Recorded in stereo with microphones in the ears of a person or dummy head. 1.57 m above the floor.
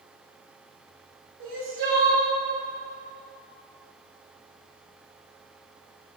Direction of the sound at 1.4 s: 55° right (ahead or behind).